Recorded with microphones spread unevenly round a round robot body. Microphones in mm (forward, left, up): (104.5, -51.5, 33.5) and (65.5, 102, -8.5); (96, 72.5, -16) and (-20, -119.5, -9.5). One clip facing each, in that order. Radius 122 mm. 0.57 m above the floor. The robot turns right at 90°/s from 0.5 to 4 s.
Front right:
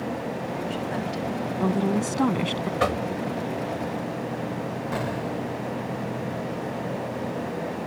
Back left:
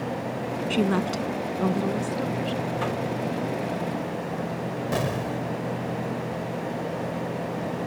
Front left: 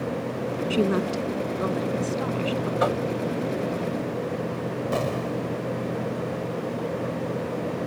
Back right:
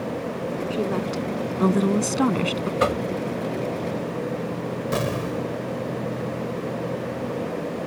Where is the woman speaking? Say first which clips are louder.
Back left 5 dB, front left 4 dB; 110° left; by 2.7 s 70° right.